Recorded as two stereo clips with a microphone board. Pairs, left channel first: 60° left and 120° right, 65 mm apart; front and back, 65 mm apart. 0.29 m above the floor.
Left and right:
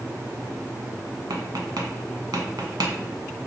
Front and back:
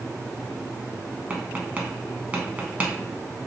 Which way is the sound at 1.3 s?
110° right.